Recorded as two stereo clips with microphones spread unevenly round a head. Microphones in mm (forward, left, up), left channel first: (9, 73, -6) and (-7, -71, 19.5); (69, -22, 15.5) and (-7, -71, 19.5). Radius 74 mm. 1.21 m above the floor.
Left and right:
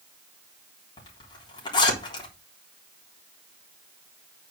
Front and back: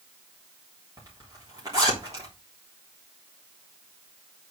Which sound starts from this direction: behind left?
A zipper, at 1.0 s.